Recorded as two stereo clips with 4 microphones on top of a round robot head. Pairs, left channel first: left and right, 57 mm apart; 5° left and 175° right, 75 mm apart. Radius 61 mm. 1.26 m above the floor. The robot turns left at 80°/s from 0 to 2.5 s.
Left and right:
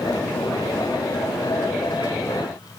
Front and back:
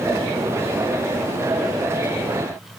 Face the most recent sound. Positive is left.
No sound to turn to.